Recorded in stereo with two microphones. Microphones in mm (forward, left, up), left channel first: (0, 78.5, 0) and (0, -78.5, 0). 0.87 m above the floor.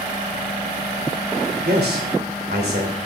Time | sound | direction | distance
1.6 | a man speaking | 80° right | 2.5 m